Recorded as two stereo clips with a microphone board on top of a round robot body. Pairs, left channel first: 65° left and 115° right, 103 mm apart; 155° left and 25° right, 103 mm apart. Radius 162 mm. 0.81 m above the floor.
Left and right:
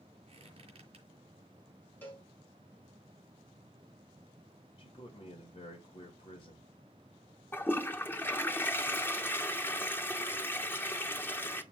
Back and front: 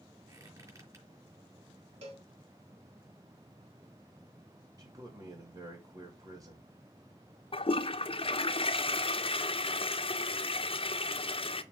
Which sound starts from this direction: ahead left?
A man speaking, at 4.8 s.